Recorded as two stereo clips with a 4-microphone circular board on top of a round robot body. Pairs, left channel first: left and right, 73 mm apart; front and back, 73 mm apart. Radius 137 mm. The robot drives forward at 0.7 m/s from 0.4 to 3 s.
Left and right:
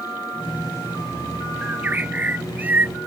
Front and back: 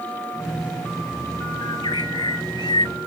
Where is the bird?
20° right.